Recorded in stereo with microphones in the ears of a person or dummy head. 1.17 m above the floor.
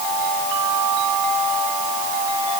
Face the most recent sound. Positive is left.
No sound to turn to.